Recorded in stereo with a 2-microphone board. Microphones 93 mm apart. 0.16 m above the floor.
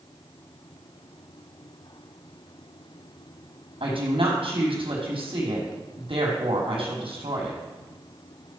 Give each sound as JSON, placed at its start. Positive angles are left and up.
{"t": 3.8, "sound": "a woman speaking", "side_deg": -80, "distance_m": 5.0}